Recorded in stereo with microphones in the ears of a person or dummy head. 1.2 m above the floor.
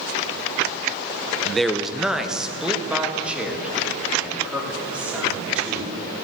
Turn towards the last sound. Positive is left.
turn(degrees=-10)  # may be behind; listen again after turning